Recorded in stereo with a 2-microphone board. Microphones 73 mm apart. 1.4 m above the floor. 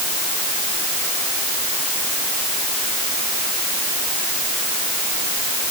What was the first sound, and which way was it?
Only background noise.